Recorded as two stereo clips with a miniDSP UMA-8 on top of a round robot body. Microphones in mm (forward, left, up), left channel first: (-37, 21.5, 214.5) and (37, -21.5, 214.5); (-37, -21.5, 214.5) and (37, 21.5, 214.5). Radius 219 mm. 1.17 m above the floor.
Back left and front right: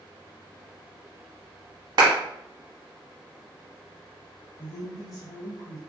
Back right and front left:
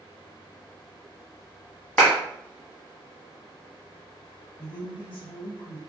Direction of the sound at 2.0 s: 75° right.